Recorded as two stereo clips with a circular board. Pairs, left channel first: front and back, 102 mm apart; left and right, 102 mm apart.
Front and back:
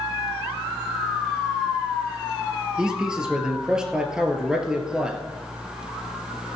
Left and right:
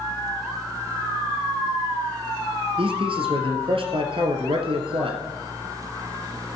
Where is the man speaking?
100° right, 2.5 m.